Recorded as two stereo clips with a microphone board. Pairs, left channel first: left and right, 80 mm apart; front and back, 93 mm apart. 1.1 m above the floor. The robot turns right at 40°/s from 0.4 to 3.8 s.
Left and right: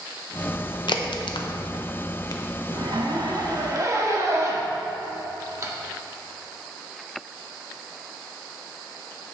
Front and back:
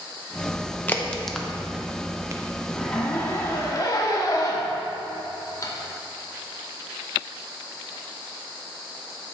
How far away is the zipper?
About 0.9 m.